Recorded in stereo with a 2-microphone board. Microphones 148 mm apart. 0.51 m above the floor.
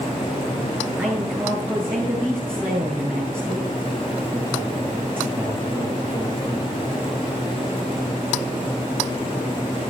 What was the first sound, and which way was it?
A man speaking, 15° right (ahead or behind).